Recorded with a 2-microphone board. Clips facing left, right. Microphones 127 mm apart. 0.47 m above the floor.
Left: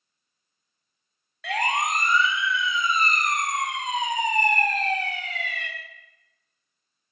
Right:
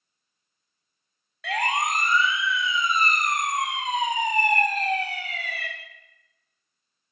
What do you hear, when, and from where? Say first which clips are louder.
1.4 s a siren: even; centre (ahead or behind), 3 m; by 5.7 s 10° right (ahead or behind), 5 m